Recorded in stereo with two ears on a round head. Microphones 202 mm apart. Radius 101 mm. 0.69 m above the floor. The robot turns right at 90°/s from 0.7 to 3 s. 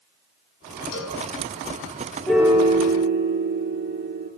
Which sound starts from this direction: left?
A cowbell, at 0.9 s.